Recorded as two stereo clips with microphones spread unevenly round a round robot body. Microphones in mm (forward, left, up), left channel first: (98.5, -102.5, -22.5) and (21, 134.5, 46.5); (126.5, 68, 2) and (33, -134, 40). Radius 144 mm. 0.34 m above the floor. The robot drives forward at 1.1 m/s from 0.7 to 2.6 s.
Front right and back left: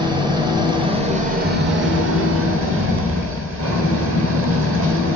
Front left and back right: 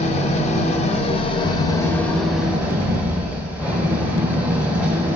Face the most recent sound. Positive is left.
turn(degrees=150)